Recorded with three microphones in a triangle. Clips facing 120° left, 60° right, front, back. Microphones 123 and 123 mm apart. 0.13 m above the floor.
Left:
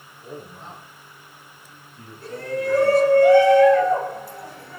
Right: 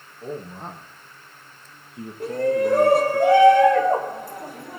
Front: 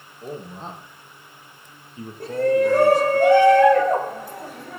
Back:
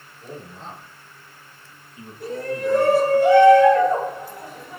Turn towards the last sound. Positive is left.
turn(degrees=-40)